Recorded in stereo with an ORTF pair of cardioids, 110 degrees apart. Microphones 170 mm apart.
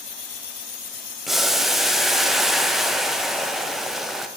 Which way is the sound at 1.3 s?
Straight ahead.